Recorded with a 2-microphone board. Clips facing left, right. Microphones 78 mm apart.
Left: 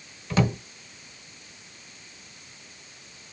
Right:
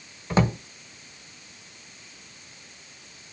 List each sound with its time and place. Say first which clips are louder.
0.3 s a drawer: right 1 dB; 30° right (ahead or behind), 0.7 m